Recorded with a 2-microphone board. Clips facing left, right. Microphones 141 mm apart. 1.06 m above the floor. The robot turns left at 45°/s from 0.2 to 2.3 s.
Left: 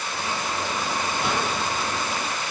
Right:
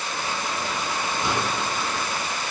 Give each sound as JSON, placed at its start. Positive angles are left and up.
{"t": 1.2, "sound": "a microwave", "side_deg": 75, "distance_m": 1.6}